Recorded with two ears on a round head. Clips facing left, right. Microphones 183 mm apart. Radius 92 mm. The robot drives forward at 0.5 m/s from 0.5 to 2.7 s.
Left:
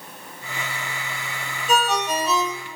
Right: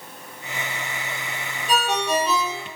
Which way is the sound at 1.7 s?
Centre (ahead or behind).